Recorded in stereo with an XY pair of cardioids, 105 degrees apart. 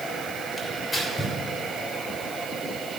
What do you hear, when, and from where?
0.6 s tearing paper: 40° left, 3 m